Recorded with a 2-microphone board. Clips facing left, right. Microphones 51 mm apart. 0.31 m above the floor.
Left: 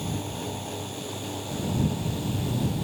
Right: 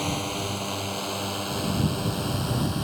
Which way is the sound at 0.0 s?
80° right.